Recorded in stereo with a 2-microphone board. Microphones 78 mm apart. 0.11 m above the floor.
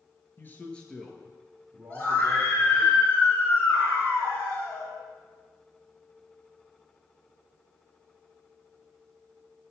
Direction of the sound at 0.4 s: 30° left (ahead or behind).